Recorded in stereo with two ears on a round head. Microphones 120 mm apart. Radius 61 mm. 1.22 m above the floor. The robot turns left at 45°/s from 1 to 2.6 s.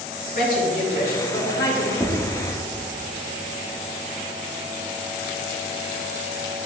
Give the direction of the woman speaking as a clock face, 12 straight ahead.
8 o'clock.